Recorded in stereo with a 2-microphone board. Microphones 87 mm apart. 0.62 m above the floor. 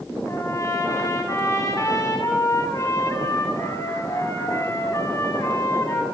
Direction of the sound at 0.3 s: 35° left (ahead or behind).